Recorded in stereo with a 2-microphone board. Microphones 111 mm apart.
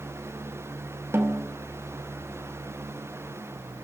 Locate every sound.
1.1 s a snare drum: 25° right (ahead or behind), 2.5 m